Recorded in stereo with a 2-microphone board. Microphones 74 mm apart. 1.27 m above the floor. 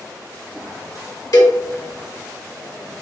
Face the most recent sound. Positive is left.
turn(degrees=50)  # may be behind; listen again after turning